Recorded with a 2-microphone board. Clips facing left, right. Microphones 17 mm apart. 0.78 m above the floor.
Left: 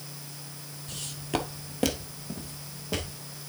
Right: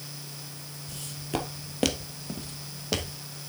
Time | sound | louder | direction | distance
0.9 | footsteps | left 2 dB | 35° left (ahead or behind) | 1.1 m